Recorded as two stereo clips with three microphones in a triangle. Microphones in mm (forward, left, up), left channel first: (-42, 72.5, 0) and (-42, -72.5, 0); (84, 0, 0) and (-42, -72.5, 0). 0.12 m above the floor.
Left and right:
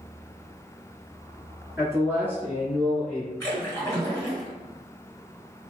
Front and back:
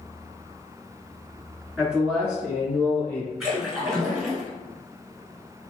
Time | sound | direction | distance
1.8 | a man speaking | 80° right | 1.4 m
3.4 | a splash | 125° left | 1.5 m